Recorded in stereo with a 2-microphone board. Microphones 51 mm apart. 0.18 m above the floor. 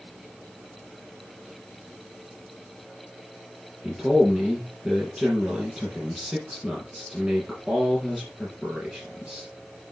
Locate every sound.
3.8 s a man speaking: 15° right (ahead or behind), 4 m